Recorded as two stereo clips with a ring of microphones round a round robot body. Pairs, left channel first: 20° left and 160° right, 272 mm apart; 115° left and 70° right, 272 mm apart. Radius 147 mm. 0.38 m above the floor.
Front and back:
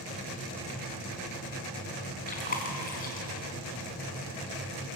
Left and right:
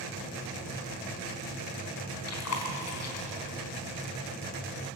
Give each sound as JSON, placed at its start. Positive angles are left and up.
{"t": 2.3, "sound": "chewing", "azimuth_deg": 80, "distance_m": 4.0}